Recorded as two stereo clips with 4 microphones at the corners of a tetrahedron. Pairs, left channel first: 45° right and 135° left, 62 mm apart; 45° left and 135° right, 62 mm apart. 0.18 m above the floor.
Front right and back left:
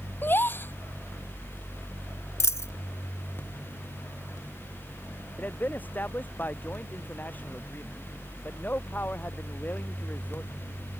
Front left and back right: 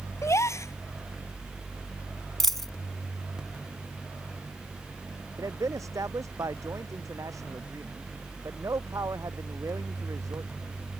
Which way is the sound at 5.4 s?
105° right.